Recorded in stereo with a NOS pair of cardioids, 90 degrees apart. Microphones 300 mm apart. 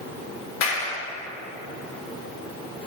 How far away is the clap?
About 3.5 m.